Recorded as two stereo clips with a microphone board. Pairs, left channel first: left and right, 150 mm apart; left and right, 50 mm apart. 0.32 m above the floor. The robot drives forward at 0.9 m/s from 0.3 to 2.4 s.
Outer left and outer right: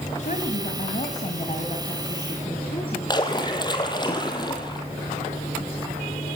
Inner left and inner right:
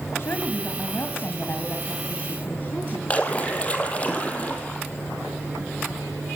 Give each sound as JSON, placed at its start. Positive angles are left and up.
{"t": 0.2, "sound": "a woman speaking", "side_deg": 60, "distance_m": 1.9}
{"t": 3.1, "sound": "a splash", "side_deg": 30, "distance_m": 3.0}